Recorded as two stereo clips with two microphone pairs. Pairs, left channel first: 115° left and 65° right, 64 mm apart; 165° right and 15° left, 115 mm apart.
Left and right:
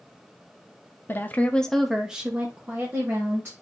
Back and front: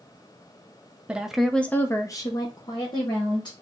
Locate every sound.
1.1 s a woman speaking: 90° left, 0.6 m; by 3.5 s 120° right, 1.3 m